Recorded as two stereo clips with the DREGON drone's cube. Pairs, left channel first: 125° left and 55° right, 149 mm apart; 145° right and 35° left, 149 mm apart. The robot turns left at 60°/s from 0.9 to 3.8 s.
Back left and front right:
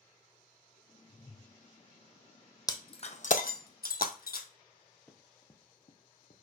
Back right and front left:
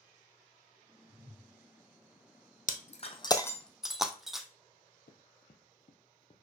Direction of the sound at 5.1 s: 155° right.